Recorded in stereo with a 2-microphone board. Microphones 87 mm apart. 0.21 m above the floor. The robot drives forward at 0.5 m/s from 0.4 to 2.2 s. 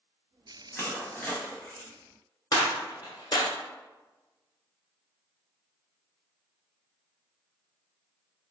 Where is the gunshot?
55° left (ahead or behind), 1.1 m.